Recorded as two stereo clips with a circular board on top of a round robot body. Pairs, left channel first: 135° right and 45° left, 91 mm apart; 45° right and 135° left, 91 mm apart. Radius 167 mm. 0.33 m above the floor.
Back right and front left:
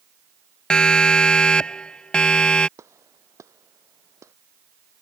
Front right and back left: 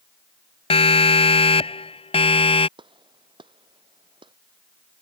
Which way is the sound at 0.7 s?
55° right.